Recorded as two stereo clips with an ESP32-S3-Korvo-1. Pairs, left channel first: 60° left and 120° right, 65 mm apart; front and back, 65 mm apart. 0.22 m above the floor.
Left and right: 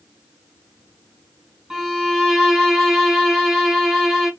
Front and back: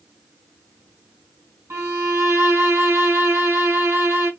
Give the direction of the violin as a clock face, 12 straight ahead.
7 o'clock.